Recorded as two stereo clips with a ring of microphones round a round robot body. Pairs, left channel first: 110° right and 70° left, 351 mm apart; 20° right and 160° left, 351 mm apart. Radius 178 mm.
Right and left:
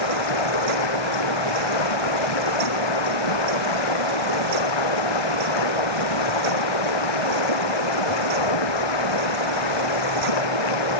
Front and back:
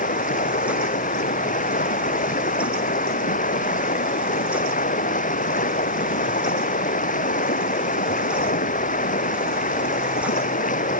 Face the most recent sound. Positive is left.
turn(degrees=-95)